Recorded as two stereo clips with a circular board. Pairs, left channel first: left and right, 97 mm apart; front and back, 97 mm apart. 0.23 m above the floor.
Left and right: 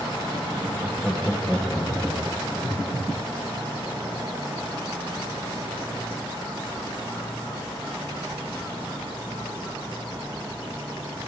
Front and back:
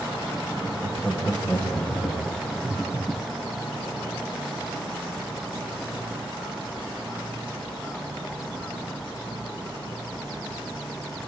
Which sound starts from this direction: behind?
Laughter, at 0.6 s.